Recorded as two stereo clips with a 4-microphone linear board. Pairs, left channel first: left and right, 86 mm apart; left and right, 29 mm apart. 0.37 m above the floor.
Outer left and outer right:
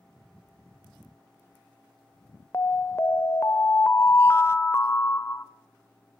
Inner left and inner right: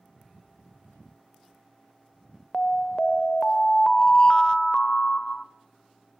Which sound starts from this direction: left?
An alarm, at 2.5 s.